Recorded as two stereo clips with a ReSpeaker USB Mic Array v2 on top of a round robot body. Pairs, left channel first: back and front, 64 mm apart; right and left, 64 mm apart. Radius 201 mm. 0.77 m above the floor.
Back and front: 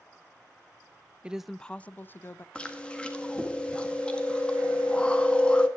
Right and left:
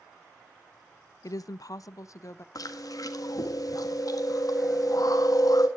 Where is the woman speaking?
70° right, 0.5 m; by 2.5 s 125° right, 1.0 m.